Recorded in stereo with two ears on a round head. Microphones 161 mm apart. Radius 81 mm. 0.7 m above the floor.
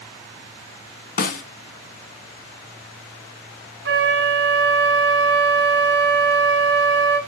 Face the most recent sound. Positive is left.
turn(degrees=-65)  # may be behind; listen again after turning